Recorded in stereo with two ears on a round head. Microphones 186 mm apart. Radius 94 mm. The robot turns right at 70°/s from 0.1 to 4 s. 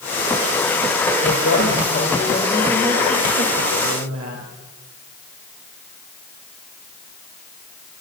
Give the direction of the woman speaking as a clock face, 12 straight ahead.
9 o'clock.